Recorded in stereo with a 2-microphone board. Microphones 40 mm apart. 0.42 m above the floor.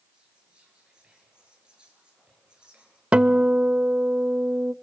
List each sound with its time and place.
0.1 s whispering: 20° right (ahead or behind), 8.5 m
3.1 s a guitar: 35° right (ahead or behind), 0.5 m